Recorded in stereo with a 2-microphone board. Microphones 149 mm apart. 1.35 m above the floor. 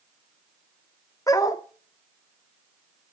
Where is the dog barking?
25° left (ahead or behind), 0.9 m.